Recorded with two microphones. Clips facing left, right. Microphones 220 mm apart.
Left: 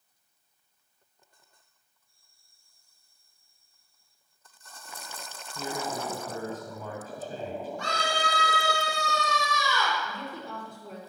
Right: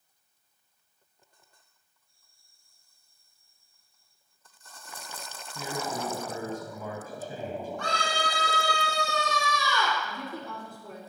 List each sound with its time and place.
5.5 s a man speaking: 10° right (ahead or behind), 1.4 m
7.8 s a scream: 60° right (ahead or behind), 5 m
10.0 s a woman speaking: 60° right (ahead or behind), 5 m